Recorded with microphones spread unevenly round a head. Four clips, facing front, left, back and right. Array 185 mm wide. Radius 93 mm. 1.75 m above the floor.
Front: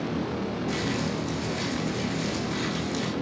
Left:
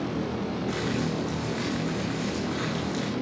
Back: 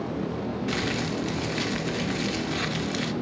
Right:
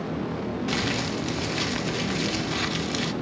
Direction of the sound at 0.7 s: 115° right.